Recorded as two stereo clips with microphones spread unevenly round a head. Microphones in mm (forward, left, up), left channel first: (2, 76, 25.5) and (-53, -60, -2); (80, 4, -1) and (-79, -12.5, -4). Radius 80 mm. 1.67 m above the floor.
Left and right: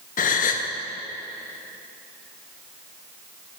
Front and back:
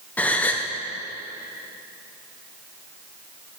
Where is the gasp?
85° left, 0.8 m.